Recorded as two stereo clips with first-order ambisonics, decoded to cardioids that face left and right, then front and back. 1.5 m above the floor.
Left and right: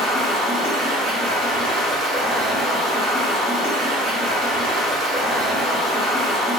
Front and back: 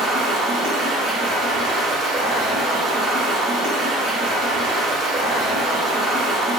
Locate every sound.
0.0 s running water: 140° right, 3 m